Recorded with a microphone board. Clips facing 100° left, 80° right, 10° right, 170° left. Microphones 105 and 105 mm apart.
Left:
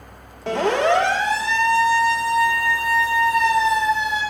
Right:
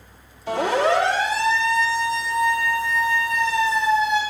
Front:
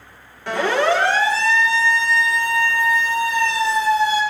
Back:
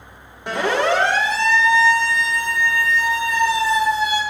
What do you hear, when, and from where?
0.5 s a siren: 100° left, 7.5 m; by 4.2 s 95° left, 12 m